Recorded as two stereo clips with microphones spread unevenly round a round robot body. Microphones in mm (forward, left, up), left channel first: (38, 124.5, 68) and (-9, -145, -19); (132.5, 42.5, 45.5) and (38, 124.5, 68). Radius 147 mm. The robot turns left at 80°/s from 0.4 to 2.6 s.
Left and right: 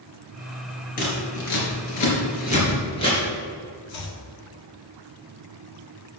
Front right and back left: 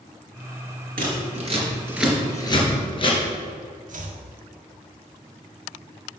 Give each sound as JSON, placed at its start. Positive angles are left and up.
{"t": 1.0, "sound": "scissors", "azimuth_deg": 140, "distance_m": 3.5}
{"t": 3.9, "sound": "chopping", "azimuth_deg": 120, "distance_m": 1.5}